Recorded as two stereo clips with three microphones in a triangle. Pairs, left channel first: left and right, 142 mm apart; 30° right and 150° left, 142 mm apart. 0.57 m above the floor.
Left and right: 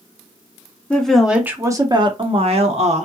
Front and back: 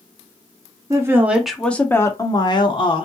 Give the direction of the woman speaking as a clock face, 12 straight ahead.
7 o'clock.